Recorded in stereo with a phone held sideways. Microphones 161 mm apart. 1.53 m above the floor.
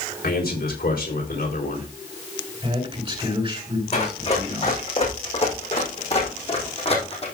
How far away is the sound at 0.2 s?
About 3.5 m.